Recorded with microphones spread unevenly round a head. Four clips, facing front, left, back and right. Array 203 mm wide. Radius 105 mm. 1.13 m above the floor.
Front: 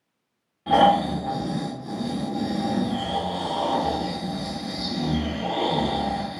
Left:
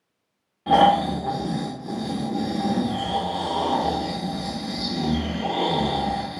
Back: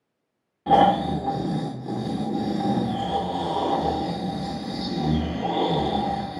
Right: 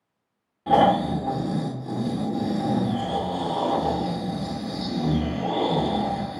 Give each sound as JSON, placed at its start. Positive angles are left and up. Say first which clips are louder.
{"t": 0.7, "sound": "snoring", "louder": "left 2 dB, even", "azimuth_deg": 160, "distance_m": 0.7}